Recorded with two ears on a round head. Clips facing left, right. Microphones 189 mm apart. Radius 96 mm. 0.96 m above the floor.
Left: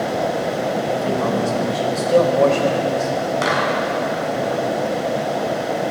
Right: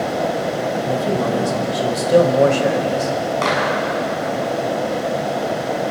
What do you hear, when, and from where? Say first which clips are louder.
0.8 s a man speaking: right 1 dB; 15° right (ahead or behind), 4 m
3.4 s a clap: right 1 dB; 10° left (ahead or behind), 6.5 m